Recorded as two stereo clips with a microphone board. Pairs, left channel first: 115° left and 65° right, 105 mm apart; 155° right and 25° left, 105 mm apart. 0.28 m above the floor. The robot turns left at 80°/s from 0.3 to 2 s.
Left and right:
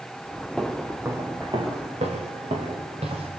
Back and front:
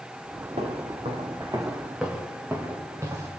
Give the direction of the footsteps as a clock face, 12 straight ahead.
11 o'clock.